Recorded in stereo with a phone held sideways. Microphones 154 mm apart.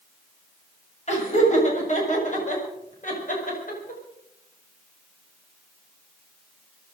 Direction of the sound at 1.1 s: 50° left (ahead or behind).